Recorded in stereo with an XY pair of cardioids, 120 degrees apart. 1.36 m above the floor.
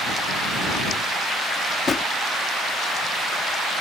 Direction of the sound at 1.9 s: 35° left.